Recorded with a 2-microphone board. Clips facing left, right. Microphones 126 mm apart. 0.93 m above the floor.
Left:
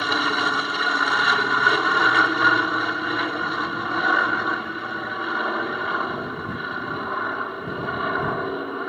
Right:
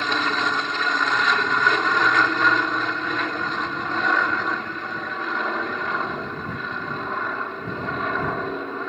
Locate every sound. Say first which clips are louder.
0.0 s an aircraft: left 1 dB; 5° left (ahead or behind)